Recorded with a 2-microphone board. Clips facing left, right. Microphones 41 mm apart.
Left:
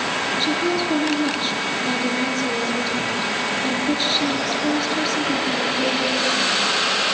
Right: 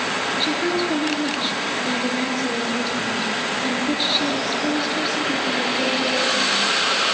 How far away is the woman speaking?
About 7 m.